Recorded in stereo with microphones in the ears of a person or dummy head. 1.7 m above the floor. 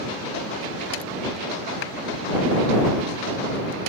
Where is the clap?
65° left (ahead or behind).